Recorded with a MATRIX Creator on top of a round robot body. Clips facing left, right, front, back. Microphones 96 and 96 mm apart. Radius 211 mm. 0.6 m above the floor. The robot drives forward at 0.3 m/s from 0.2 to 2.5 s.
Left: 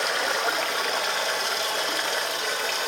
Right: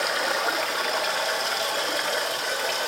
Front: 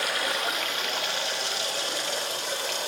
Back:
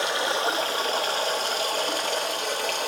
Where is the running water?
175° right, 0.9 m; by 2.9 s straight behind, 1.3 m.